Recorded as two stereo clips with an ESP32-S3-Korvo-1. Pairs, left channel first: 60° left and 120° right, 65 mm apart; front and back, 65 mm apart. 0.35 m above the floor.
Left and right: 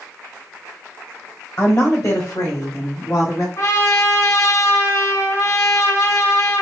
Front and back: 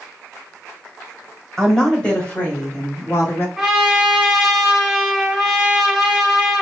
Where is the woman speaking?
85° left, 1.5 m; by 3.5 s 45° left, 2 m.